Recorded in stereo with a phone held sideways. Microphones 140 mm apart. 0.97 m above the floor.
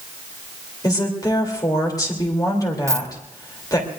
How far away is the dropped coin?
About 0.6 m.